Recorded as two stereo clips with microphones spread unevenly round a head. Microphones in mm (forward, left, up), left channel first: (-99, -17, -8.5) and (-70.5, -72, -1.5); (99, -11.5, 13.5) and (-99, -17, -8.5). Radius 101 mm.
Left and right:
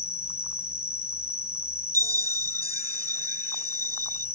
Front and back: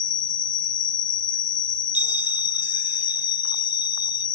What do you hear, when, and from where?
0.0 s an insect: 5° left
1.9 s a bell: 95° right